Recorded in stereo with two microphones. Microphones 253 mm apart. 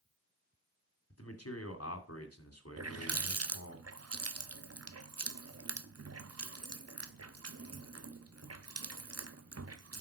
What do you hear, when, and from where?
1.1 s a man speaking: 75° left (ahead or behind), 2.5 m
2.8 s a running tap: 75° right (ahead or behind), 0.6 m